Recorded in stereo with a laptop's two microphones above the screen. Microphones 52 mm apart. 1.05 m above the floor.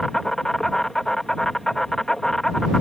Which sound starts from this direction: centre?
An insect, at 0.0 s.